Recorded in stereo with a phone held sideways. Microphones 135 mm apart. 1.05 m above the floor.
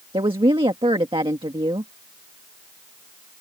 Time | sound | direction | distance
0.1 | a woman speaking | 40° right (ahead or behind) | ?